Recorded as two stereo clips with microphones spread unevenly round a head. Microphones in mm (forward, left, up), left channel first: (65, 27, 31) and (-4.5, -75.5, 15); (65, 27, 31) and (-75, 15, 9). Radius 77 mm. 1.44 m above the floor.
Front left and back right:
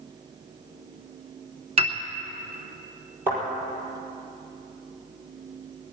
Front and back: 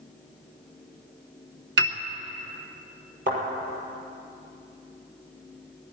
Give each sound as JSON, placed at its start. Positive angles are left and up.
{"t": 1.8, "sound": "a piano", "azimuth_deg": 180, "distance_m": 1.0}
{"t": 3.3, "sound": "a thud", "azimuth_deg": 155, "distance_m": 5.5}